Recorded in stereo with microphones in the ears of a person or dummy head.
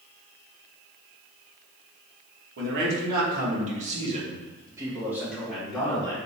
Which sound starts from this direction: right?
A man speaking, at 2.6 s.